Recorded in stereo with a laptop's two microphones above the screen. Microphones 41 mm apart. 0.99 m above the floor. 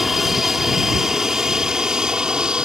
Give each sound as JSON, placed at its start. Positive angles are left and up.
{"t": 0.0, "sound": "an aircraft", "side_deg": -5}